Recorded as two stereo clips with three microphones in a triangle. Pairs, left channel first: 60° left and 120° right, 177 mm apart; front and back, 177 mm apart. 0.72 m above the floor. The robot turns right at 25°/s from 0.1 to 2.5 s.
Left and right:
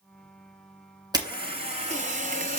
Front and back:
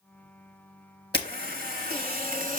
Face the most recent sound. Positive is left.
turn(degrees=-150)